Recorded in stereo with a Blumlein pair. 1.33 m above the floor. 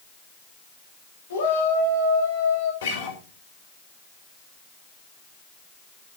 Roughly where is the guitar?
Ahead left.